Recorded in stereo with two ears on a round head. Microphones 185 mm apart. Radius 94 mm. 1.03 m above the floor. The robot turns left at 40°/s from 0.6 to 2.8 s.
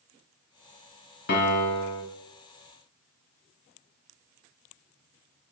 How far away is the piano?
About 1.3 m.